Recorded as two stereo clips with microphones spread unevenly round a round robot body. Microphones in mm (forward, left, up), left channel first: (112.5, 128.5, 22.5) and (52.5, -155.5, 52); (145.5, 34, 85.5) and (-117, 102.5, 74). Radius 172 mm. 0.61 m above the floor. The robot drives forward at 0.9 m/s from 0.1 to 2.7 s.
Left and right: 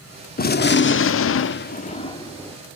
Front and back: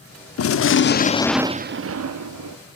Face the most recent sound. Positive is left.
turn(degrees=160)